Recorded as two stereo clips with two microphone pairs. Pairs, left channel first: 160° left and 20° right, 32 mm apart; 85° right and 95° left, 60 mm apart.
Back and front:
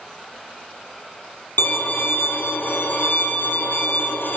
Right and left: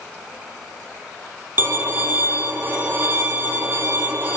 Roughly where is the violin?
Behind left.